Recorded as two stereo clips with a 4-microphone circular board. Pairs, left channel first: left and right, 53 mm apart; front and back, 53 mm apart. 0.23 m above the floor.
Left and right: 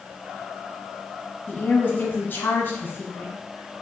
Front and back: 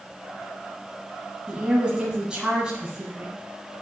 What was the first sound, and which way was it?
A woman speaking, 115° left.